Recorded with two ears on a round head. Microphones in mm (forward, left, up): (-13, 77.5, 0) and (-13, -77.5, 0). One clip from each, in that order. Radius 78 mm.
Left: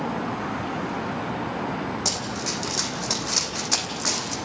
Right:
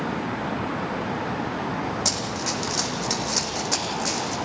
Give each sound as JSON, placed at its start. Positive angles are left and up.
{"t": 2.0, "sound": "running footsteps", "side_deg": 0, "distance_m": 3.5}